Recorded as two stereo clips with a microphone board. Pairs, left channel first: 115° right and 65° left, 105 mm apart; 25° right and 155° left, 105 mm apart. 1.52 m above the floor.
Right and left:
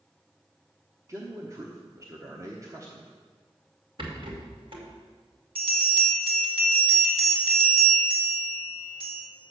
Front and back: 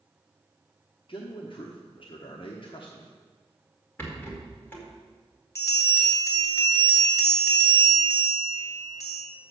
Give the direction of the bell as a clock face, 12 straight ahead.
11 o'clock.